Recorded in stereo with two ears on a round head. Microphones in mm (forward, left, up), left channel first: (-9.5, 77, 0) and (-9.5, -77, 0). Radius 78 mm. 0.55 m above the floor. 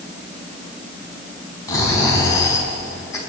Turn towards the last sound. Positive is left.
turn(degrees=20)  # may be behind; listen again after turning